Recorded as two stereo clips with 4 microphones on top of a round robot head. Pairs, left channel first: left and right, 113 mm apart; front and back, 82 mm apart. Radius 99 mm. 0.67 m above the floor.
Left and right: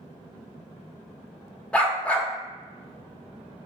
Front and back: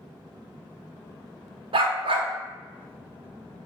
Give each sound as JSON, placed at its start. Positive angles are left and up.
{"t": 1.7, "sound": "a dog barking", "azimuth_deg": 170, "distance_m": 0.9}